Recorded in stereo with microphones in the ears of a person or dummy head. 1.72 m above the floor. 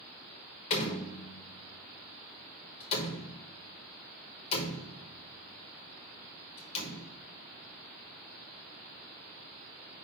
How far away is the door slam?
About 1.1 m.